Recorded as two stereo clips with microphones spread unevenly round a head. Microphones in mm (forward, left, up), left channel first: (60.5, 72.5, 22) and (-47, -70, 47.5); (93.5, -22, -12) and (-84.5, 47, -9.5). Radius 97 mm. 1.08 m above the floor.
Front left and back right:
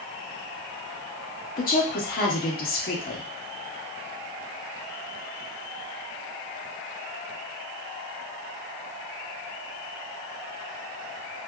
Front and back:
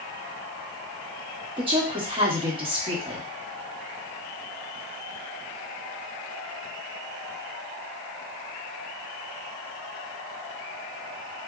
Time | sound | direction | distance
1.6 | a woman speaking | 95° left | 1.1 m